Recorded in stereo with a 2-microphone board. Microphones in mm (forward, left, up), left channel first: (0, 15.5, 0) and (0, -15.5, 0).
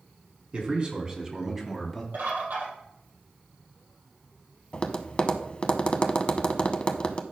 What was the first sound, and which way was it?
A man speaking, 35° right (ahead or behind).